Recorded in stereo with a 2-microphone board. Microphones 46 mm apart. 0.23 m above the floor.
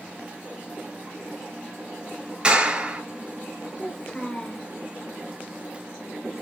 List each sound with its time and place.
2.4 s a clap: 20° right (ahead or behind), 3 m
3.8 s a child speaking: 15° left (ahead or behind), 2.5 m